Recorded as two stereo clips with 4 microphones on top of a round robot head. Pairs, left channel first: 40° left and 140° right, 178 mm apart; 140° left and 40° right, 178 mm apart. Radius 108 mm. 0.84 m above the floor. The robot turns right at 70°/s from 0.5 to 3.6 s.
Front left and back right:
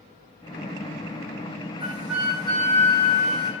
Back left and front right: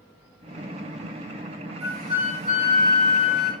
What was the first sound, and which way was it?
A flute, 75° right.